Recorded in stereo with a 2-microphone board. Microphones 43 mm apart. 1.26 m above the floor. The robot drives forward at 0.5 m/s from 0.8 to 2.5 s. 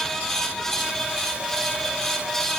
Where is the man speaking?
I don't hear a man speaking.